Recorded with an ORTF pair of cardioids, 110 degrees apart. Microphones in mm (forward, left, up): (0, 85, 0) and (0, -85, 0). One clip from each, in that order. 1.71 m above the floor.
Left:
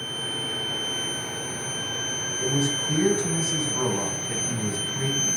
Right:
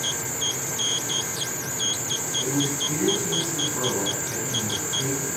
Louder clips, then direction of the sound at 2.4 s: Left 2 dB; 30° left.